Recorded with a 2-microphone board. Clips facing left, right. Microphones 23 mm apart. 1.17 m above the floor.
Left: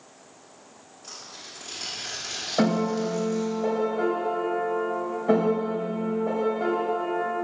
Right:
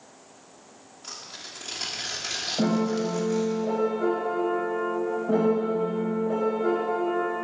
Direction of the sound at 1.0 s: 30° right (ahead or behind).